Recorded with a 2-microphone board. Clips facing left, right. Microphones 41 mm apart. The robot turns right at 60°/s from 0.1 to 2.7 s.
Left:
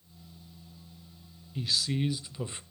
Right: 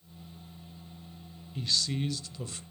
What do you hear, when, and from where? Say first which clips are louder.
1.6 s a man speaking: left 1 dB; 5° left (ahead or behind), 0.9 m; by 2.6 s 30° left (ahead or behind), 0.9 m